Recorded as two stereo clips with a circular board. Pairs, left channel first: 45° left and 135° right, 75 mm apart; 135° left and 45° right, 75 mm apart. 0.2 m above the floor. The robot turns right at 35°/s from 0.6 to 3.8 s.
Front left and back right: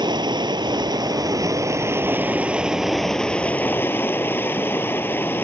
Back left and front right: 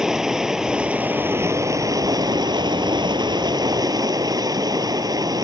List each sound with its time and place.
0.0 s running water: 130° right; by 5.4 s 15° right